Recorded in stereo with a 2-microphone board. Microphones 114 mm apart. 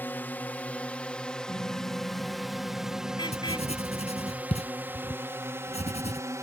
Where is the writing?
80° left.